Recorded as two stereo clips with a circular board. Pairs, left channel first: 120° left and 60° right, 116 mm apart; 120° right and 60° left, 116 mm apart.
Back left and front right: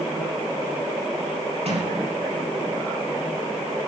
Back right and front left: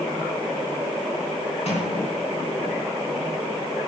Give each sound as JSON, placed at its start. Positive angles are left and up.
{"t": 1.6, "sound": "a sliding door", "azimuth_deg": -90, "distance_m": 4.5}